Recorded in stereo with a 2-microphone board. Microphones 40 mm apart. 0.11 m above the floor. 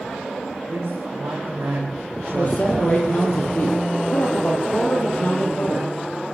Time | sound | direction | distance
0.7 | a man speaking | 75° right (ahead or behind) | 6 m
2.4 | a man speaking | 40° left (ahead or behind) | 3.5 m